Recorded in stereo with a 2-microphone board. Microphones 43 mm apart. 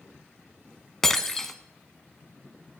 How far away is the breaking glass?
About 1.0 m.